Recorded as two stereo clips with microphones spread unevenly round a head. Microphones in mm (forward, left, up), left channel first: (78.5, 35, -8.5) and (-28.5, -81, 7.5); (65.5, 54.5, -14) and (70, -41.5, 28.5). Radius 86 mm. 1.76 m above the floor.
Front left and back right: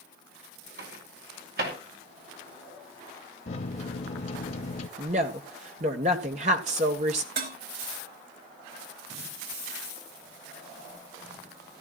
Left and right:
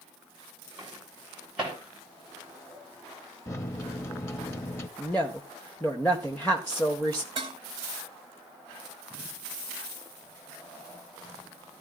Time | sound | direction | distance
0.8 | a microwave | 165° right | 3.5 m
3.5 | a microwave | 20° left | 1.0 m
5.0 | a woman speaking | 175° left | 1.6 m
7.4 | dishes clattering | 130° right | 2.5 m